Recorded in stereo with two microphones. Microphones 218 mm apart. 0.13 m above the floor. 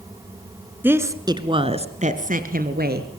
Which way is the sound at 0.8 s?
10° right (ahead or behind).